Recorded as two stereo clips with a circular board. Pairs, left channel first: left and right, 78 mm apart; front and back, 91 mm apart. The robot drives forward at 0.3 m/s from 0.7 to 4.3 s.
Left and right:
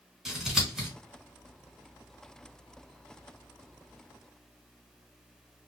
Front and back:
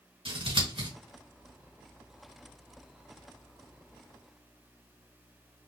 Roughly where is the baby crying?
I don't hear a baby crying.